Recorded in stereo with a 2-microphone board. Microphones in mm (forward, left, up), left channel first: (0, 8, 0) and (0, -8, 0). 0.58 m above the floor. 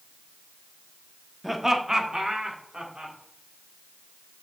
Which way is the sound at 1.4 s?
10° right (ahead or behind).